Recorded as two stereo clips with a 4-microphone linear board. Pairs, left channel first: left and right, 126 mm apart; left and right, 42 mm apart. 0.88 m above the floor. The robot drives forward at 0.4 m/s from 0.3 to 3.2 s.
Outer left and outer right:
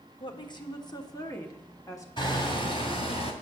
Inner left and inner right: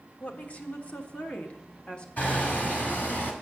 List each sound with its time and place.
0.2 s a woman speaking: 40° left (ahead or behind), 1.2 m; by 2.1 s 25° left (ahead or behind), 1.6 m
2.2 s hammering: 40° left (ahead or behind), 2 m; by 3.3 s 45° left (ahead or behind), 1.7 m